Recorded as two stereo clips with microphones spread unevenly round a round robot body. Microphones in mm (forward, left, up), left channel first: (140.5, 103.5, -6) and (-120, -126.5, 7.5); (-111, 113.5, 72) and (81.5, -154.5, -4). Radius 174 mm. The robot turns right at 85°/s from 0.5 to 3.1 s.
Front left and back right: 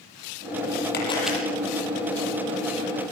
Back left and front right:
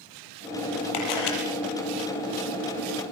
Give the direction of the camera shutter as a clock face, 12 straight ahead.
9 o'clock.